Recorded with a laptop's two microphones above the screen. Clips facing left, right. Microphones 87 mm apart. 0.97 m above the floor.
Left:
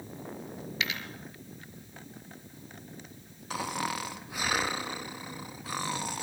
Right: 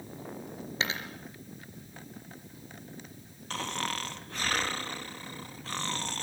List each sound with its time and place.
0.8 s a dropped coin: 30° right (ahead or behind), 4 m
3.5 s snoring: 10° left (ahead or behind), 1.0 m